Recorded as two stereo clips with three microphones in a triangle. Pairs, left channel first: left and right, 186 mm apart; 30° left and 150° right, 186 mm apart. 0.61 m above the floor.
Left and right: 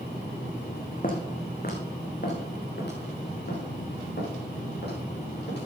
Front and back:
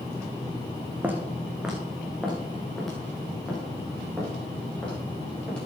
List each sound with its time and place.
1.0 s footsteps: 130° left, 2 m; by 5.7 s 115° left, 7 m